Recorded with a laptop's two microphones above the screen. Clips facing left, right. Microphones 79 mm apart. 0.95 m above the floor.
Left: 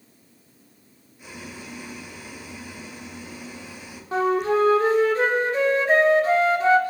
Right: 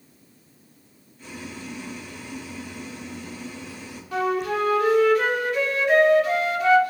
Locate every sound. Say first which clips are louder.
1.2 s boiling: right 2 dB; 15° left (ahead or behind), 3 m
4.1 s a flute: left 3 dB; 35° left (ahead or behind), 1.7 m